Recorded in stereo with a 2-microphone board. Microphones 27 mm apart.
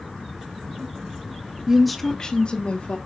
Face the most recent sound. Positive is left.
turn(degrees=55)  # may be behind; listen again after turning